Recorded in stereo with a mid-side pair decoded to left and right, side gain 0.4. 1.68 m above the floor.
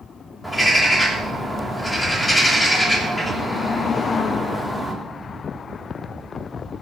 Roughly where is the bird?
Ahead.